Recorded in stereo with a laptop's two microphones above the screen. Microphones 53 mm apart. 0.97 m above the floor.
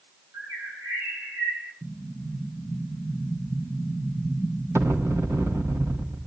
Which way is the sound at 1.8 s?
65° right (ahead or behind).